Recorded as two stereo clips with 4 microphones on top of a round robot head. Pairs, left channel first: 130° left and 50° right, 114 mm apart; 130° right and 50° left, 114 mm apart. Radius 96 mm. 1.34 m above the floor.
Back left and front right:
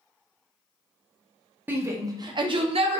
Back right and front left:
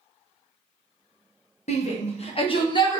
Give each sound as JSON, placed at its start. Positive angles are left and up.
{"t": 1.7, "sound": "a shout", "azimuth_deg": -120, "distance_m": 1.0}